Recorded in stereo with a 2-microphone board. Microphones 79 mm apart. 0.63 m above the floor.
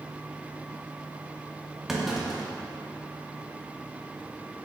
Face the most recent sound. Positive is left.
turn(degrees=-5)  # may be behind; listen again after turning